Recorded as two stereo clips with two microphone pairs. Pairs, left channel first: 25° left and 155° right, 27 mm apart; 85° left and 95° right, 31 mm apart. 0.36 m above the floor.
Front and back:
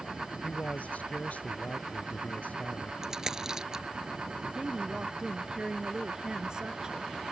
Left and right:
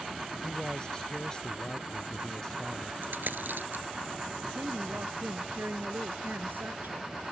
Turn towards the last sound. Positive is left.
turn(degrees=-95)